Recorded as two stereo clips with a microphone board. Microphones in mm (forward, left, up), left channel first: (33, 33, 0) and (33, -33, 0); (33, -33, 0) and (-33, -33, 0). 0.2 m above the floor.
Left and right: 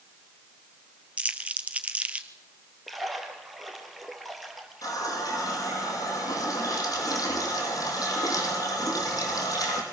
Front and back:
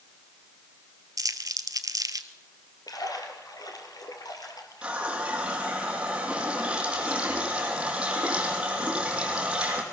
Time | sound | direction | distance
1.2 | crumpling | 160° right | 1.3 m
2.9 | a splash | straight ahead | 3 m
4.8 | a running tap | 110° left | 5 m